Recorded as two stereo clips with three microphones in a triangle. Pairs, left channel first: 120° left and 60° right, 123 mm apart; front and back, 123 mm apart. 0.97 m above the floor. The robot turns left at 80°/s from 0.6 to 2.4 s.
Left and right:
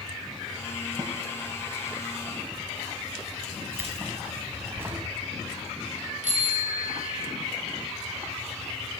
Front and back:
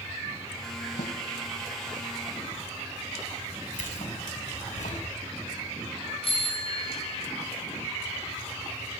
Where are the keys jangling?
10° left, 6 m.